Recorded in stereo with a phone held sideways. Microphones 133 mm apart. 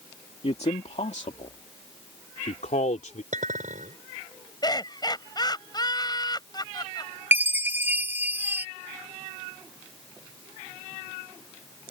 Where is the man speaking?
50° left (ahead or behind); by 3.2 s 70° left (ahead or behind).